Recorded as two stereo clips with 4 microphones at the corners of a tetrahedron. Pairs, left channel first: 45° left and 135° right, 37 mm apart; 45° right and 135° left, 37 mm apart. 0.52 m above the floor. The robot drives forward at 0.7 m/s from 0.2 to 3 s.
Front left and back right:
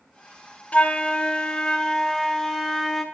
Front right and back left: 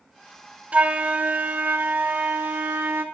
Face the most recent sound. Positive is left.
turn(degrees=140)